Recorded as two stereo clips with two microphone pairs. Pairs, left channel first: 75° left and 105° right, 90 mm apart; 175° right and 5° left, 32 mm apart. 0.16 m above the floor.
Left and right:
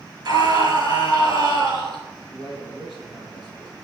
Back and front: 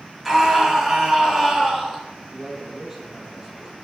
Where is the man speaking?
90° right, 4.5 m.